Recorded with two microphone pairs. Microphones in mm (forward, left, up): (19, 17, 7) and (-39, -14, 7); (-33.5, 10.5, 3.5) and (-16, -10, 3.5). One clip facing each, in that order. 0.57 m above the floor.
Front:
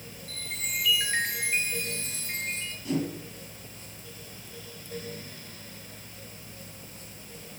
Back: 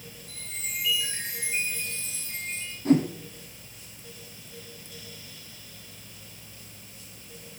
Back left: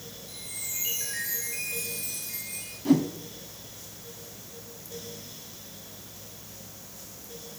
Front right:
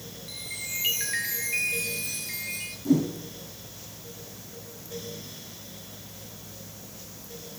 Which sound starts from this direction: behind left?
A whoosh, at 2.9 s.